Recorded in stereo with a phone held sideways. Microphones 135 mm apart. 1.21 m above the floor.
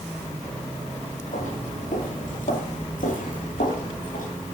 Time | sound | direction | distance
1.3 | footsteps | 70° left (ahead or behind) | 5 m